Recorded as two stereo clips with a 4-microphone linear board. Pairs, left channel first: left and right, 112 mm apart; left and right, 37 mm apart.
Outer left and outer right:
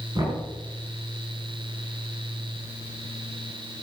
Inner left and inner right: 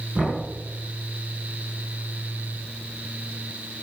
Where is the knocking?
35° right (ahead or behind), 4.5 m.